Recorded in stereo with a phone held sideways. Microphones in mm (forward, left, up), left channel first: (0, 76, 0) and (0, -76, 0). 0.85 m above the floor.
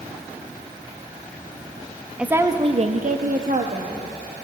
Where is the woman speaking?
10° right (ahead or behind), 0.8 m; by 4.0 s 50° right (ahead or behind), 1.2 m.